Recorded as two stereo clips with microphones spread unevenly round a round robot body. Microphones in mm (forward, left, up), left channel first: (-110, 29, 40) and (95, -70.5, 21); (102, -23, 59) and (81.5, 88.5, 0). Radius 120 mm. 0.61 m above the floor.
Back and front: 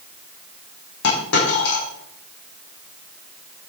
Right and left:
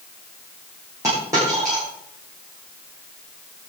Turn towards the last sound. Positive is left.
turn(degrees=175)